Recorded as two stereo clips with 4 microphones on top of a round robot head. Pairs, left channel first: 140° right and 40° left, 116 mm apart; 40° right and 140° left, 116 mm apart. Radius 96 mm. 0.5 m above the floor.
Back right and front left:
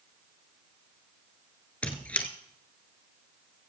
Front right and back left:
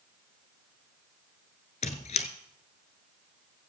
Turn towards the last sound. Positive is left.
turn(degrees=-65)